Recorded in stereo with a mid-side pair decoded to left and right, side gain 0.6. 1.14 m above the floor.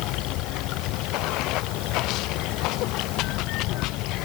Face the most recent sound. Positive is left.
turn(degrees=70)